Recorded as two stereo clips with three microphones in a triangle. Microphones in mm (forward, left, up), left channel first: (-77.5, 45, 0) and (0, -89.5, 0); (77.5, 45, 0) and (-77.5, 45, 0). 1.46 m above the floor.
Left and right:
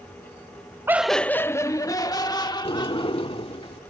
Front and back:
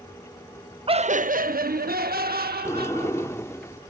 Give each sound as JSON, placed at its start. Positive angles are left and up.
{"t": 0.9, "sound": "laughter", "azimuth_deg": -135}
{"t": 2.6, "sound": "a sliding door", "azimuth_deg": 70}